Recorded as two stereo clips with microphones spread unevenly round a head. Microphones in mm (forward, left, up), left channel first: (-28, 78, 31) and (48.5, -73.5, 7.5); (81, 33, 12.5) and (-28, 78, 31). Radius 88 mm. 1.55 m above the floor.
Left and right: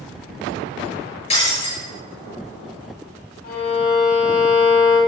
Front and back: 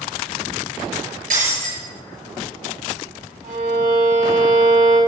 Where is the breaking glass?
170° left, 6 m.